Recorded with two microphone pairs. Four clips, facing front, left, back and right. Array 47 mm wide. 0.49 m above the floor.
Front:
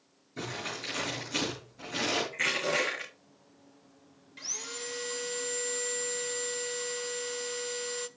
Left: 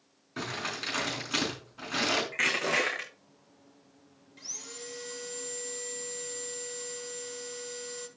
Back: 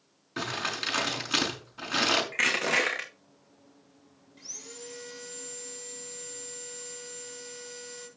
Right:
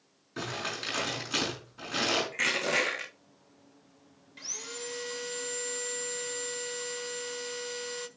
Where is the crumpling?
170° left, 5 m.